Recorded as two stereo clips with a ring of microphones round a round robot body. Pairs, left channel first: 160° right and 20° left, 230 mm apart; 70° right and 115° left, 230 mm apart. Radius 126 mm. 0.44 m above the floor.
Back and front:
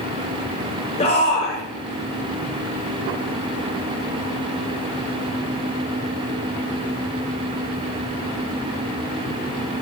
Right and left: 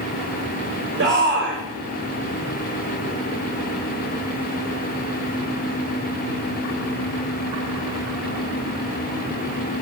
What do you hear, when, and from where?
1.0 s a shout: 145° left, 2.5 m